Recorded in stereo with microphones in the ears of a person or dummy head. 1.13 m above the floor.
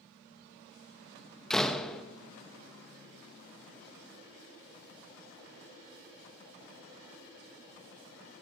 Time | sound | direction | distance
1.5 | a door slam | 5° left (ahead or behind) | 0.7 m